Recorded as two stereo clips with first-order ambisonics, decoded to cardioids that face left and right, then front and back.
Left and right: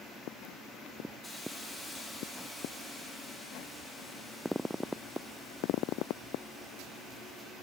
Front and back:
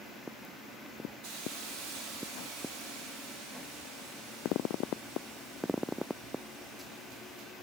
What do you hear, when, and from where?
1.2 s a hiss: 175° left, 3 m